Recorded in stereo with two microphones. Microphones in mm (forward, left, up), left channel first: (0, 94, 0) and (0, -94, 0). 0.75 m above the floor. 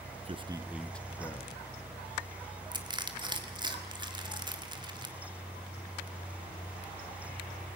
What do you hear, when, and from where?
0.2 s a man speaking: 35° right (ahead or behind), 0.6 m; by 1.7 s 30° left (ahead or behind), 1.0 m
2.7 s crushing: 25° right (ahead or behind), 1.9 m